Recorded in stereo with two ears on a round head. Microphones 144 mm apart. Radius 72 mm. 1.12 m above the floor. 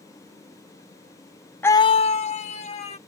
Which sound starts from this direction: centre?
A scream, at 1.6 s.